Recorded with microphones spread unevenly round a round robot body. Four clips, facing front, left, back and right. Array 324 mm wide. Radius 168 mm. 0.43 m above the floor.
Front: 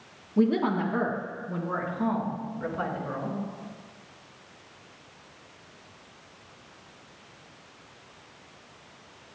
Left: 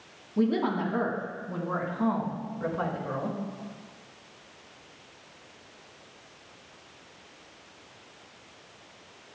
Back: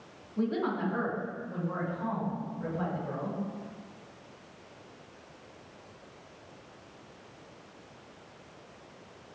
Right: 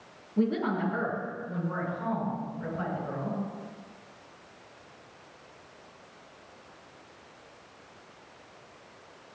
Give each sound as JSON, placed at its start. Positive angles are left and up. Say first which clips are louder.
{"t": 0.4, "sound": "a woman speaking", "louder": "left 2 dB, front 6 dB", "azimuth_deg": 15, "distance_m": 4.5}